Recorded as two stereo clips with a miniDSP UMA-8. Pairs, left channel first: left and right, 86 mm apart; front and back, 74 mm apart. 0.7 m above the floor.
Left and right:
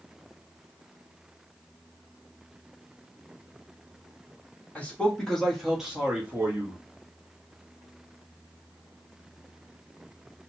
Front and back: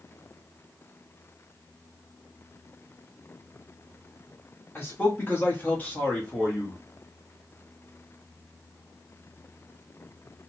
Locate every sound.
4.8 s a man speaking: 30° left, 1.3 m; by 6.8 s 75° right, 1.2 m